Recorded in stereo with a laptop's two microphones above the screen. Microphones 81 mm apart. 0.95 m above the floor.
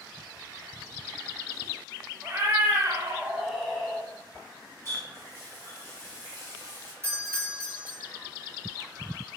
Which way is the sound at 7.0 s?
30° right (ahead or behind).